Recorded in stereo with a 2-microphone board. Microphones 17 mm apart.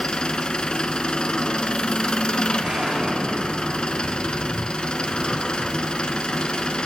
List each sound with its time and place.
0.0 s an engine running: 70° left (ahead or behind), 0.9 m
2.6 s an explosion: 60° right (ahead or behind), 7.5 m